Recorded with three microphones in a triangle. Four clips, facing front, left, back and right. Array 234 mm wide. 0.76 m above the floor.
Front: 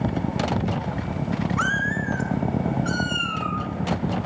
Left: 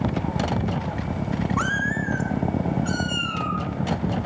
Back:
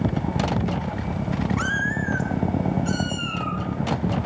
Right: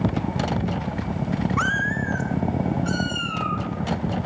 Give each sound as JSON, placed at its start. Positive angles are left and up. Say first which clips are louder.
{"t": 1.6, "sound": "a cat meowing", "louder": "right 1 dB, front 1 dB", "azimuth_deg": -105, "distance_m": 0.8}